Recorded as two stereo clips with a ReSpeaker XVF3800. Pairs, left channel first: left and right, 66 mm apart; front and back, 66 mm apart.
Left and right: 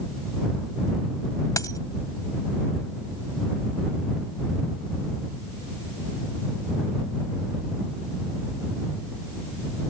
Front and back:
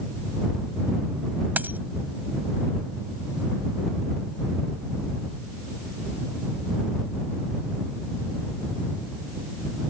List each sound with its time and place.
1.6 s a dropped coin: 120° left